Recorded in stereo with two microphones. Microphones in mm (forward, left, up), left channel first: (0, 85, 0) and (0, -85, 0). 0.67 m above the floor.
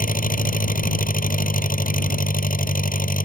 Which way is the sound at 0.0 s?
55° left (ahead or behind).